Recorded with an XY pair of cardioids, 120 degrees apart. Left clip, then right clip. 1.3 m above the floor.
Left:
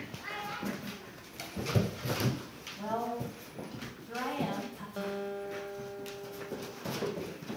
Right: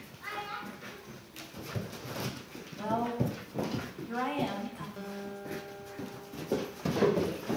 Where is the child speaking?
15° right, 8 m.